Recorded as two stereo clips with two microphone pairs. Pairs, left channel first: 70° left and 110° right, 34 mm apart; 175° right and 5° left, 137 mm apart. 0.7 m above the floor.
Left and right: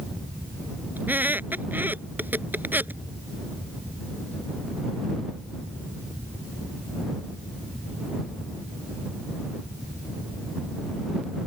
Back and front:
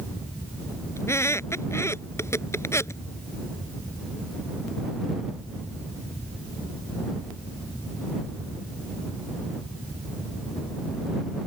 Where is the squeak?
105° right.